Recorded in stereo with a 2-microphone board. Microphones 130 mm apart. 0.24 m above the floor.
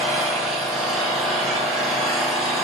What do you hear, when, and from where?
0.0 s an engine running: centre (ahead or behind), 1.3 m